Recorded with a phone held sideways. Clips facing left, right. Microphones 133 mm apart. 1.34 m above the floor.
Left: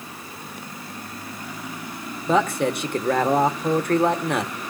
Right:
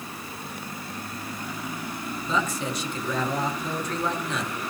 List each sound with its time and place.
2.3 s a man speaking: 60° left (ahead or behind), 1.4 m